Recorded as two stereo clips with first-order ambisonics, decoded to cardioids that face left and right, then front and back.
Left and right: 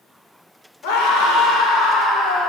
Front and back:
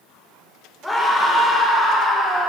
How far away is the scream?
About 4.5 m.